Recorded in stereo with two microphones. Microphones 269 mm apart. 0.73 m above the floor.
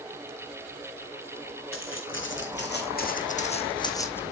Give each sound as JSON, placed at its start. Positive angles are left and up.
{"t": 1.7, "sound": "footsteps", "side_deg": 50, "distance_m": 2.0}